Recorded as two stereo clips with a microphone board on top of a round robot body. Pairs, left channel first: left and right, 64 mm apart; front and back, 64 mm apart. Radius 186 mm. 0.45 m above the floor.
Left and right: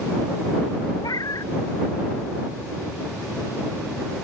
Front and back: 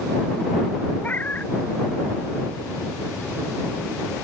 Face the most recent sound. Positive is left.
turn(degrees=65)